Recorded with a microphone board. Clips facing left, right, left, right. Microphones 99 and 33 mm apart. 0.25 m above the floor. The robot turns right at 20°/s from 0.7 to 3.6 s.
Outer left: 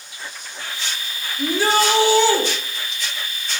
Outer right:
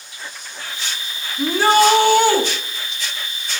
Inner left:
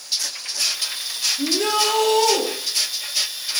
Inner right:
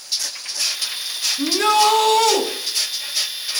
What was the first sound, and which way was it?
A shout, 55° right (ahead or behind).